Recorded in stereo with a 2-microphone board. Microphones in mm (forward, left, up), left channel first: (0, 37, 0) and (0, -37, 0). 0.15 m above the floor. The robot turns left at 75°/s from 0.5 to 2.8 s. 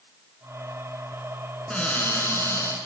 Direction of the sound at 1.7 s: 160° left.